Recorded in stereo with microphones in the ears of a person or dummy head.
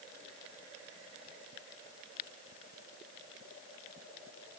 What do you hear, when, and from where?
Only background noise.